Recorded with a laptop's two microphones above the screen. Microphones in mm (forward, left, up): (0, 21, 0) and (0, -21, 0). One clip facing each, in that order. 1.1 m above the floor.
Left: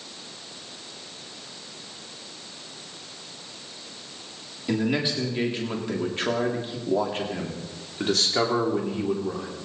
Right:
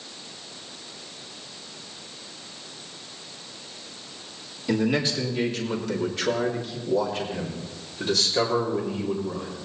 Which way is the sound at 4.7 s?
15° left (ahead or behind).